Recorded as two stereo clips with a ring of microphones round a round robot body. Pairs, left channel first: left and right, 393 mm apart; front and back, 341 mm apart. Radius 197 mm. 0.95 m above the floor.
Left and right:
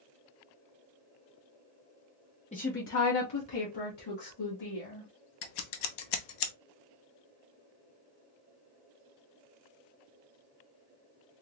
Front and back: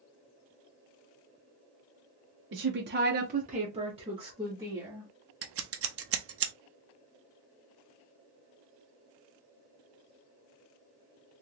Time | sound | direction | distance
2.5 | a woman speaking | 155° left | 0.7 m
5.4 | scissors | 125° left | 0.7 m